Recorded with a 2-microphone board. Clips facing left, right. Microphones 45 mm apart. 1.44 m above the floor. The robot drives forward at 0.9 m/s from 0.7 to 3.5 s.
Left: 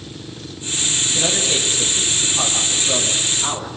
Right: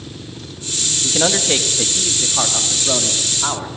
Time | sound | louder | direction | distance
1.0 | a man speaking | right 5 dB | 45° right (ahead or behind) | 2.5 m